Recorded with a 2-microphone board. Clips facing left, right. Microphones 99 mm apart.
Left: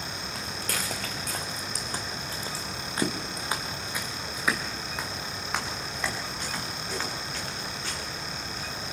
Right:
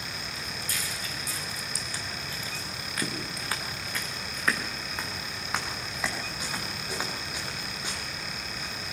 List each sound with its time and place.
0.3 s footsteps: 70° left (ahead or behind), 4 m; by 8.8 s 20° right (ahead or behind), 9 m